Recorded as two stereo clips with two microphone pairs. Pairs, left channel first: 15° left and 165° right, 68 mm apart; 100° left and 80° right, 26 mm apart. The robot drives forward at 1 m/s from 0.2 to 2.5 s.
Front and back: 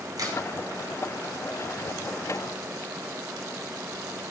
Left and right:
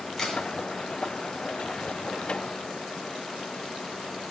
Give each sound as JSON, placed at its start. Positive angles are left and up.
{"t": 0.2, "sound": "a crack", "azimuth_deg": 170, "distance_m": 2.5}